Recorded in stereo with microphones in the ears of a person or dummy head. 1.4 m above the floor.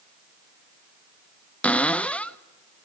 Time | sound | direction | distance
1.6 | a cupboard door | 5° left (ahead or behind) | 0.6 m